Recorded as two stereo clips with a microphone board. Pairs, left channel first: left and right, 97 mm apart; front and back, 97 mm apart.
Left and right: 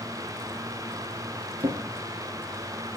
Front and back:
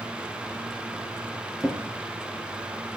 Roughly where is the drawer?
Right.